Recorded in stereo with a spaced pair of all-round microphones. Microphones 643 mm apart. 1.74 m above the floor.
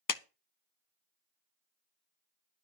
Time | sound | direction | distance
0.1 | a clap | 35° left (ahead or behind) | 0.5 m